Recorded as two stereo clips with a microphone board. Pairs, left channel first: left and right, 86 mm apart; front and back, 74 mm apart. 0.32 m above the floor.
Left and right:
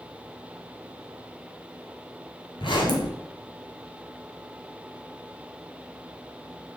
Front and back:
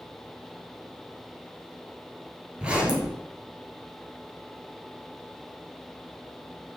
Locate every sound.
2.6 s a zipper: 105° left, 1.1 m